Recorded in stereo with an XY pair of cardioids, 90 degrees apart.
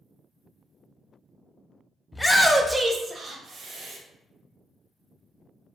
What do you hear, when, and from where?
2.1 s a shout: 15° left, 0.7 m; by 4.0 s 70° right, 1.0 m